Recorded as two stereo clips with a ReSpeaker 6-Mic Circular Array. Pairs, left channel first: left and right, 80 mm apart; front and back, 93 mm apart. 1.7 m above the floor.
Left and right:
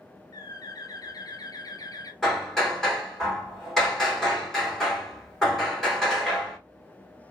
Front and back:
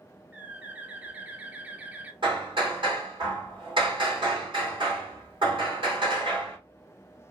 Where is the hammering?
Straight behind, 2.5 m.